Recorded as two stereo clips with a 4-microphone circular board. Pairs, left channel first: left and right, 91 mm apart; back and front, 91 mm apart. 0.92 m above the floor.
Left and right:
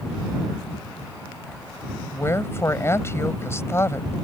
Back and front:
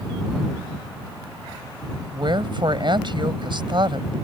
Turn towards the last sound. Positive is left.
turn(degrees=30)